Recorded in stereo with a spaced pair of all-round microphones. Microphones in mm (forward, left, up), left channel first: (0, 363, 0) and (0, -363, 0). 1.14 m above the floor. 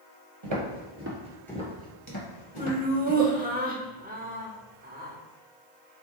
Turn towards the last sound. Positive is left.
turn(degrees=-10)  # may be behind; listen again after turning